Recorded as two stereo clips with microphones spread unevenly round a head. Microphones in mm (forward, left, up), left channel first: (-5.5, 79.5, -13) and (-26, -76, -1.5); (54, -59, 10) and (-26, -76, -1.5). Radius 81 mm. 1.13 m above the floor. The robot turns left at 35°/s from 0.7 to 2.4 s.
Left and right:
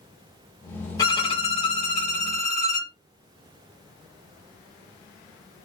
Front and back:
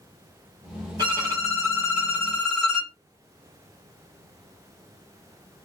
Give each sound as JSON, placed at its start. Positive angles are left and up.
{"t": 1.0, "sound": "a violin", "azimuth_deg": 150, "distance_m": 1.2}